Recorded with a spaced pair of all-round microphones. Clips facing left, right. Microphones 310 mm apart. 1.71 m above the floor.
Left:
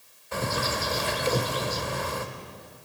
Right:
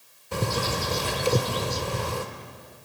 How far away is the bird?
About 1.8 m.